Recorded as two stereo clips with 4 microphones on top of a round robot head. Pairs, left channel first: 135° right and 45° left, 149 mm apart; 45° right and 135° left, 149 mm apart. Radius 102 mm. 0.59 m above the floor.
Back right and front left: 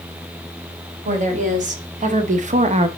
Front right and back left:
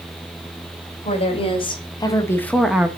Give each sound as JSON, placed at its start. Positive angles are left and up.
{"t": 1.1, "sound": "a woman speaking", "azimuth_deg": 5, "distance_m": 2.5}